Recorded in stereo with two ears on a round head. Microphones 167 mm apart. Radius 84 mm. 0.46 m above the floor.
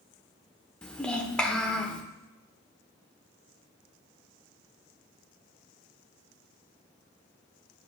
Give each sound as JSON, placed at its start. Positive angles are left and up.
{"t": 0.8, "sound": "a child speaking", "side_deg": 5, "distance_m": 0.8}